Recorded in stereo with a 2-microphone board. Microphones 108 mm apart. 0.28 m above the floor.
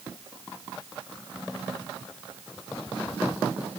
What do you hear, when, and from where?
Only background noise.